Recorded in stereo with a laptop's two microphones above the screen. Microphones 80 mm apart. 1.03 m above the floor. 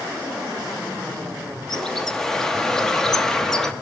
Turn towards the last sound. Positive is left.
turn(degrees=5)  # may be behind; listen again after turning